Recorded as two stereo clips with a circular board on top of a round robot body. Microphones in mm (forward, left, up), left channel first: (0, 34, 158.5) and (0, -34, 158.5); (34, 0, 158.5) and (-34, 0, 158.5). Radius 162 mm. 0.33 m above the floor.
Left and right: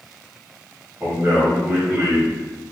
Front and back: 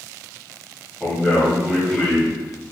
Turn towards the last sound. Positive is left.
turn(degrees=-60)